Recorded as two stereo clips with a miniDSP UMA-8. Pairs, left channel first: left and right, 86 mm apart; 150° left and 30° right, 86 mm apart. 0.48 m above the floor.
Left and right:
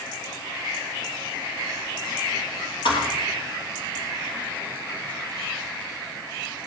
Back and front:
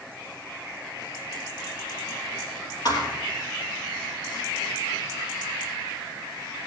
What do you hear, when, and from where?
2.9 s a thud: 110° left, 3 m